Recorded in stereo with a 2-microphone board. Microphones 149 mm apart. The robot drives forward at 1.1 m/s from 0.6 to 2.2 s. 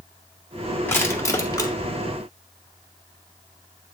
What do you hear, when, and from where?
0.9 s crushing: 15° left (ahead or behind), 1.8 m; by 1.7 s 30° left (ahead or behind), 1.0 m